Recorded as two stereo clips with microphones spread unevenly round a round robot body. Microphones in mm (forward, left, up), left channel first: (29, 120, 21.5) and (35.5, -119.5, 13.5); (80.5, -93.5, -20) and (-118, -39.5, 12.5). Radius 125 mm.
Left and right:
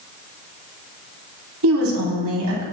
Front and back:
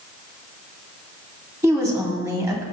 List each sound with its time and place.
1.6 s a woman speaking: 120° right, 3.5 m